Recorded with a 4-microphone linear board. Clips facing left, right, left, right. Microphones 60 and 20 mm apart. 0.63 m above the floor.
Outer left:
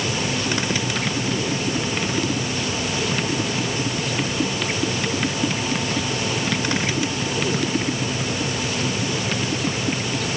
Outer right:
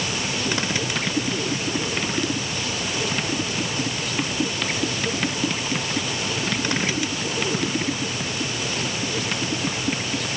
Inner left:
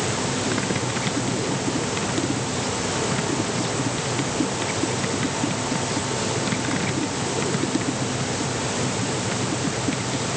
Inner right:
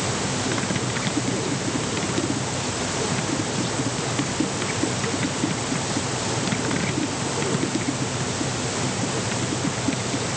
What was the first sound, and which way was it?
Only background noise.